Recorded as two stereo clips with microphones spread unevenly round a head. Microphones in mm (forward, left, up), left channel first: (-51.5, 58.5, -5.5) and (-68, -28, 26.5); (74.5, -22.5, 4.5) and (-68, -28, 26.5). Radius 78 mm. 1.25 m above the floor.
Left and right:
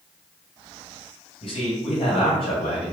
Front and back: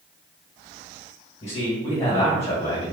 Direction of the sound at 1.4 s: 65° left.